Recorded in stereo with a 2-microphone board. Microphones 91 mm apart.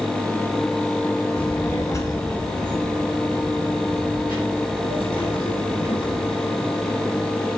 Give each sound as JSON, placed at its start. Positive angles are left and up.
{"t": 1.4, "sound": "a child speaking", "side_deg": 15, "distance_m": 1.4}